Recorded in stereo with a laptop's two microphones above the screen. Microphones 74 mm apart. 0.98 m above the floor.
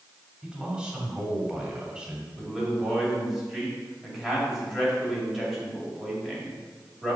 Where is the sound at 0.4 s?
10° right (ahead or behind), 2.5 m.